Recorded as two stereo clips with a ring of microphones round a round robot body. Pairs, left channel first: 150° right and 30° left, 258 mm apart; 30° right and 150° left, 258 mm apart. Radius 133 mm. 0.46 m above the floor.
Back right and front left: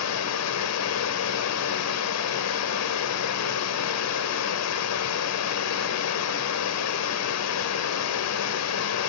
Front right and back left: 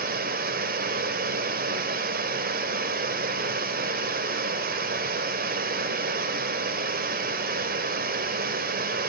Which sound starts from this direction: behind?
Running water, at 0.0 s.